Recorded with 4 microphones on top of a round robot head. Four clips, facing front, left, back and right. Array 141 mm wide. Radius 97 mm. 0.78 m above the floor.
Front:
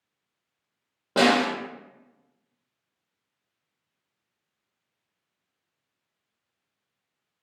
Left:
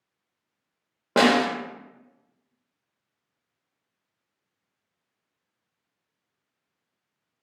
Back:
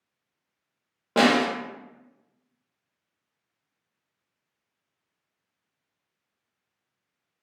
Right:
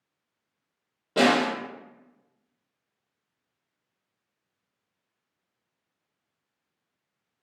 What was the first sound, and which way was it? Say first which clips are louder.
A snare drum: left 2 dB, even; 90° left.